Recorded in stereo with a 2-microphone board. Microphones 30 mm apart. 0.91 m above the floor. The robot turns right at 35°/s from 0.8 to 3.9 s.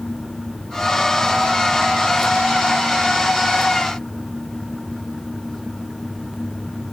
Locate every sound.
Only background noise.